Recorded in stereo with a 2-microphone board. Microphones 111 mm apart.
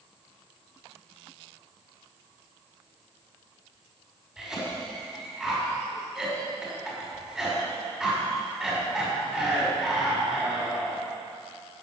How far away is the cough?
About 5 m.